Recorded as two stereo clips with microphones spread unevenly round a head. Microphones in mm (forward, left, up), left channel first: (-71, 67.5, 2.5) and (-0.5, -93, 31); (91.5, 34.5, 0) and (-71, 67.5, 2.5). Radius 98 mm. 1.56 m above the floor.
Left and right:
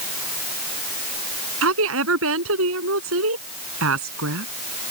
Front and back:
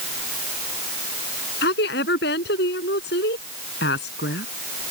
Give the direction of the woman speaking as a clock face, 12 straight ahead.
2 o'clock.